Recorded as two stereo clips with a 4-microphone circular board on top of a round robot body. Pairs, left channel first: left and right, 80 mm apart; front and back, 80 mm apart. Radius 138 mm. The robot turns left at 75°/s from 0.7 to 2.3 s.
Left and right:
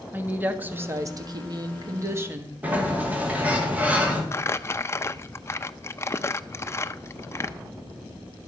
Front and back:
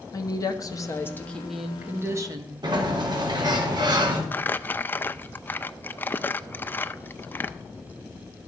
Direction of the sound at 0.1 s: 30° right.